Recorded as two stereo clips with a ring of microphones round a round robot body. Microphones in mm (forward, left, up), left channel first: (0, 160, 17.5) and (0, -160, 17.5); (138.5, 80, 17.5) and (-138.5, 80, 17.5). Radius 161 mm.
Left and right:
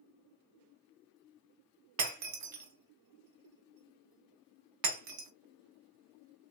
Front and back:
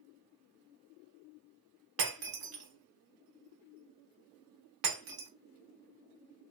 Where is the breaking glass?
130° right, 0.7 m.